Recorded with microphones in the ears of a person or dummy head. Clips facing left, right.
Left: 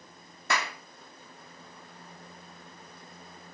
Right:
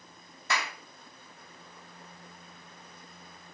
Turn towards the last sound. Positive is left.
turn(degrees=55)  # may be behind; listen again after turning